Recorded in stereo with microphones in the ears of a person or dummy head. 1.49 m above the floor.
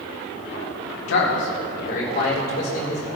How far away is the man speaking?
About 1.4 m.